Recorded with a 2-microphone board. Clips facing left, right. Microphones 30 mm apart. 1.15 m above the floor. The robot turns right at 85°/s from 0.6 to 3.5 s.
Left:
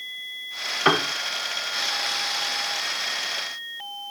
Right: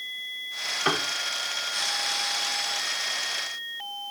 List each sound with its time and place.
0.8 s a piano: 25° left (ahead or behind); by 1.1 s 40° left (ahead or behind)